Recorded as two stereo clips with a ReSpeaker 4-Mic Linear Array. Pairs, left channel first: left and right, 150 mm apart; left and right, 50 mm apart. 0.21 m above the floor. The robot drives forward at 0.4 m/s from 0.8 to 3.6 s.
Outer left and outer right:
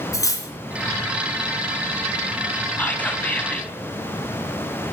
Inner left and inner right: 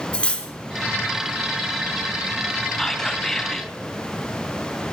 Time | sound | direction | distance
0.1 | cutlery clinking | 20° left (ahead or behind) | 1.3 m
2.8 | whispering | 10° left (ahead or behind) | 1.2 m